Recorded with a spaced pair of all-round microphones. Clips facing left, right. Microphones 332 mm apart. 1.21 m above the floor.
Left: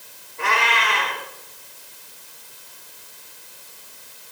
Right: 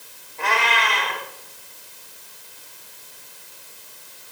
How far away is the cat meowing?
About 5.5 m.